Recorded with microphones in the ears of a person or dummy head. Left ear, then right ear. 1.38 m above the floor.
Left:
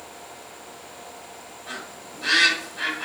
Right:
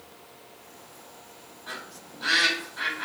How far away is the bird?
About 1.5 m.